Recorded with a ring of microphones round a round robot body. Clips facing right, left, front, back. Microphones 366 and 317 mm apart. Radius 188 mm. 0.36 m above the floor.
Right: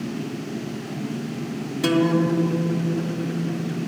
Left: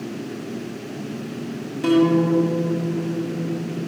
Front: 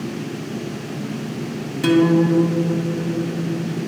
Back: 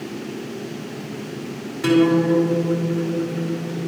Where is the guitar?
35° right, 1.8 m.